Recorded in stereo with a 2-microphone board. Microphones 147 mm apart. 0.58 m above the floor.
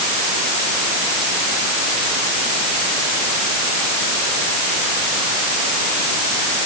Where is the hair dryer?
I don't hear a hair dryer.